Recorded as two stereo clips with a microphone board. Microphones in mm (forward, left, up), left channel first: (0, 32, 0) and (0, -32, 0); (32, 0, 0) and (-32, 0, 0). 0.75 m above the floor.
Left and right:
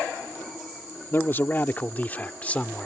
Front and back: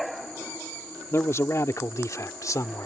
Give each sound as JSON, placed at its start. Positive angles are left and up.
{"t": 1.1, "sound": "a man speaking", "azimuth_deg": 40}